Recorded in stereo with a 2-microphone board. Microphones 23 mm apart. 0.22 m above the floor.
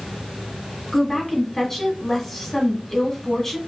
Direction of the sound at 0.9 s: 15° left (ahead or behind).